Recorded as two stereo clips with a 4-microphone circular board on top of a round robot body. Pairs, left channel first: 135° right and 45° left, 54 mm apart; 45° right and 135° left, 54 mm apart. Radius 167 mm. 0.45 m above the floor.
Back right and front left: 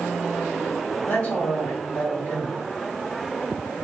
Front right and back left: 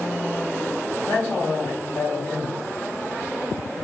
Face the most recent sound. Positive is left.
turn(degrees=-100)